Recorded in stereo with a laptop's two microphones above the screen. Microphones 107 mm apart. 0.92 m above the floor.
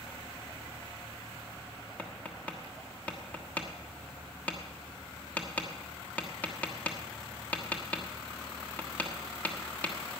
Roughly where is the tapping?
Centre.